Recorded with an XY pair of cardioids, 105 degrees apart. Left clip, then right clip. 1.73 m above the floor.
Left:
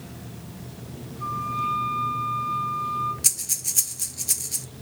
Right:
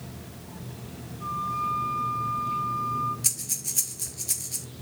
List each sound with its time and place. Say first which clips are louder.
1.2 s a flute: left 2 dB; 35° left, 4.5 m
3.2 s breathing: left 4 dB; 25° left, 2.5 m